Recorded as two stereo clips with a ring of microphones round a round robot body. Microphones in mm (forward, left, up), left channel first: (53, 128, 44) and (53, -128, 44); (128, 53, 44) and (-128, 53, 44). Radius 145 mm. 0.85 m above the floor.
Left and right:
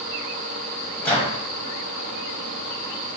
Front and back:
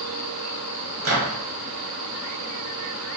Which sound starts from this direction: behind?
A microwave, at 1.0 s.